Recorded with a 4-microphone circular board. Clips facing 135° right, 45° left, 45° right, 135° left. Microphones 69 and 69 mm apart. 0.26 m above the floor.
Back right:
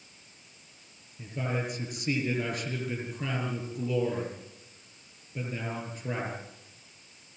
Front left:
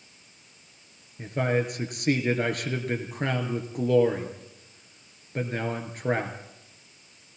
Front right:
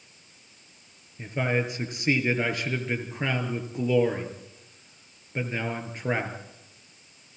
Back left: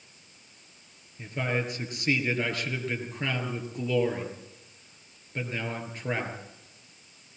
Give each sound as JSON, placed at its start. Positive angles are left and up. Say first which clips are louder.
{"t": 1.2, "sound": "a man speaking", "louder": "front left 7 dB, front right 3 dB", "azimuth_deg": 20, "distance_m": 6.0}